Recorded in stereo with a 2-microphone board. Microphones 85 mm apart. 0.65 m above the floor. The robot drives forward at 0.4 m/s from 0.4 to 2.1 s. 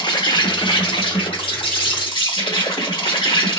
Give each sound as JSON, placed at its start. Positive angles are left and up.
{"t": 0.0, "sound": "an insect", "side_deg": 70, "distance_m": 1.1}